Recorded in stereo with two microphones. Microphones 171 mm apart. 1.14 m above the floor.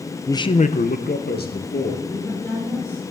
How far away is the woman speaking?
About 4 m.